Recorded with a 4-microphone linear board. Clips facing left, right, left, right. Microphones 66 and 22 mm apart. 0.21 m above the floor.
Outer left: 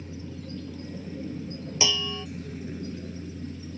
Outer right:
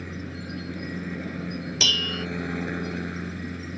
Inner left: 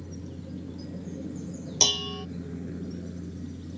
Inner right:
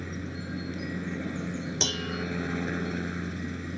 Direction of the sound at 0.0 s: 65° right (ahead or behind).